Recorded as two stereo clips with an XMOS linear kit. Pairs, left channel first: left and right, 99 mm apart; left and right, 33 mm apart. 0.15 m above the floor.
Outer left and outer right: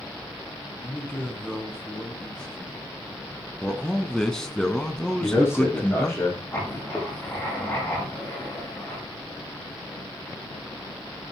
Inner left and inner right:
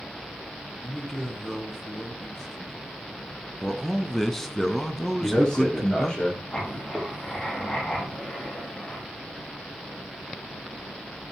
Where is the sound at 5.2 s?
25° left (ahead or behind), 6.5 m.